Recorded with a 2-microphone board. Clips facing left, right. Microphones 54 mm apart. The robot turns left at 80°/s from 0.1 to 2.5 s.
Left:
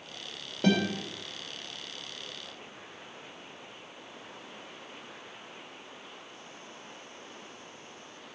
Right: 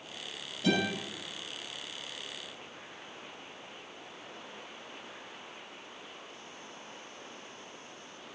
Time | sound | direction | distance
0.6 | a guitar | 60° left (ahead or behind) | 3 m